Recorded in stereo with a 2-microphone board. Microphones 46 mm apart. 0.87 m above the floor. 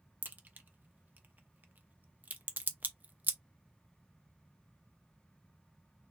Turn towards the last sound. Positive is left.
turn(degrees=-45)  # may be behind; listen again after turning